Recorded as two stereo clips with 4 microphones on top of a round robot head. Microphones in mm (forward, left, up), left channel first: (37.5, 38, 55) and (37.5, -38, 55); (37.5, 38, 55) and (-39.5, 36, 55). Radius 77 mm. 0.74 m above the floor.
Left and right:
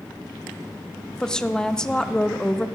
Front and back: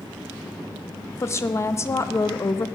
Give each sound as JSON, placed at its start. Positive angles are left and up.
{"t": 1.2, "sound": "a woman speaking", "azimuth_deg": 15, "distance_m": 0.8}